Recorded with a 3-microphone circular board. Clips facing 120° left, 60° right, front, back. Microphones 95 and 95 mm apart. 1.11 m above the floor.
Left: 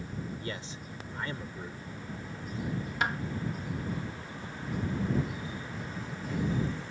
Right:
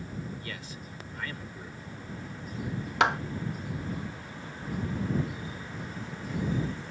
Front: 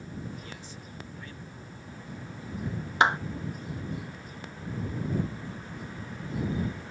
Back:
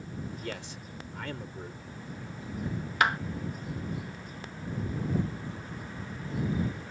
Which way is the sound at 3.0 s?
65° right.